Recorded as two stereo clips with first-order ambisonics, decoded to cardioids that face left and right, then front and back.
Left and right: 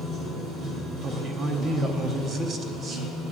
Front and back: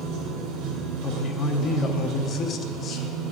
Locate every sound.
0.0 s running water: 150° right, 2.5 m
1.0 s a man speaking: 40° right, 0.9 m